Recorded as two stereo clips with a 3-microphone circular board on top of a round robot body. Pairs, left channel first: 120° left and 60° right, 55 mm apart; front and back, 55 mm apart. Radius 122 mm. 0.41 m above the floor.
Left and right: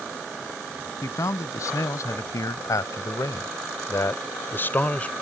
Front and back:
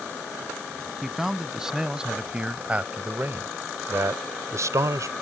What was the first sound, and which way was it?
A man speaking, 95° left.